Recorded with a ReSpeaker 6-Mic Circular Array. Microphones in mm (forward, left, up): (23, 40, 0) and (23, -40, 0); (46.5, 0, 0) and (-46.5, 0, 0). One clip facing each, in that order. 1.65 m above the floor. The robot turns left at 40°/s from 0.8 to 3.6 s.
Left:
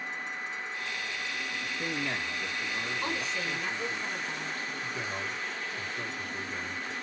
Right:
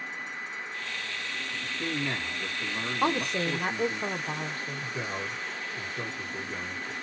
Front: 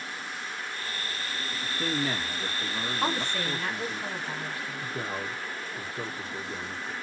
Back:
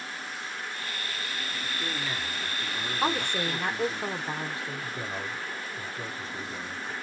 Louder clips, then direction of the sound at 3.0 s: Right 6 dB, back 3 dB; 95° right.